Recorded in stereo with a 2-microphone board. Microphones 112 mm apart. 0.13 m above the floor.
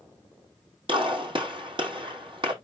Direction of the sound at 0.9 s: 50° right (ahead or behind).